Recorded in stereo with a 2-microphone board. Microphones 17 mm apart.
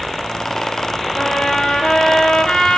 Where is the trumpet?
65° left (ahead or behind), 8 m.